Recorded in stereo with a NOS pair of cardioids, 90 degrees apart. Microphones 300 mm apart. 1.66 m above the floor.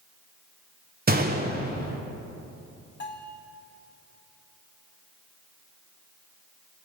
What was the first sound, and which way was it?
A gunshot, 35° right.